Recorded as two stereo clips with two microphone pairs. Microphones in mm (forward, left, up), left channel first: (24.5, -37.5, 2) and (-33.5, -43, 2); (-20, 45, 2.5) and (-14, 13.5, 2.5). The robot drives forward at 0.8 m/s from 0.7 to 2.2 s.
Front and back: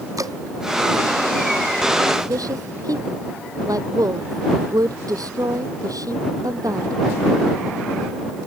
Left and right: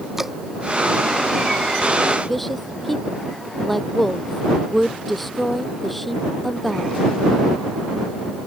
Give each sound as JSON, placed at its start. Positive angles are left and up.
{"t": 0.2, "sound": "dripping", "azimuth_deg": -160}
{"t": 2.3, "sound": "a woman speaking", "azimuth_deg": -175}